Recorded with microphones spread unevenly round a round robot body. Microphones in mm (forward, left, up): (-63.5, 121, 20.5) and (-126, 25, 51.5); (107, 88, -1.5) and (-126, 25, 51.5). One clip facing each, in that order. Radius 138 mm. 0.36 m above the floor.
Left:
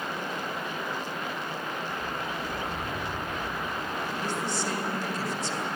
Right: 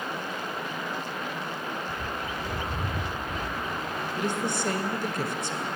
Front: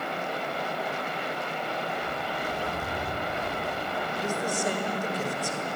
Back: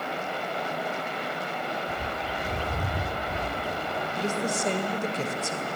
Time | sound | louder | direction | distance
1.9 | a bird | even, even | 135° right | 1.1 m
4.2 | a woman speaking | right 5 dB, back 2 dB | 95° right | 1.7 m